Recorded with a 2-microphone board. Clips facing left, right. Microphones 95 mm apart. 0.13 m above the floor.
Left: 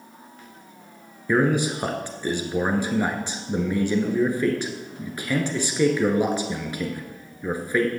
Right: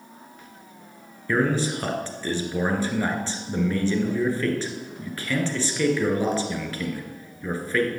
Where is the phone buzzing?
No phone buzzing in this recording.